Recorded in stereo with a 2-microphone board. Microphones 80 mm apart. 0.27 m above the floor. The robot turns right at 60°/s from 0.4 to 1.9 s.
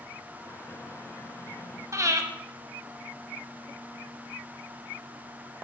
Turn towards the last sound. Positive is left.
turn(degrees=-40)  # may be behind; listen again after turning